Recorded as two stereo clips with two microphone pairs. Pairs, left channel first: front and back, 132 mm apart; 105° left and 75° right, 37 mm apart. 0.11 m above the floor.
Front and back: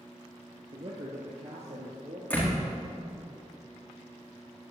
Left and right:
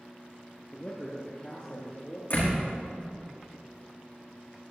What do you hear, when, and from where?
0.7 s a man speaking: 150° left, 1.9 m; by 2.2 s 160° left, 2.5 m
2.3 s a door slam: 80° left, 5 m